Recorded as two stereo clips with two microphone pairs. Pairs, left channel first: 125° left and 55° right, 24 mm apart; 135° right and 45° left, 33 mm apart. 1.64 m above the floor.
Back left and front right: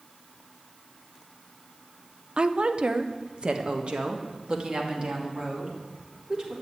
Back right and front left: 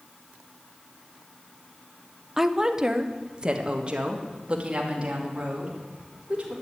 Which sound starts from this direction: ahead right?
A woman speaking, at 2.4 s.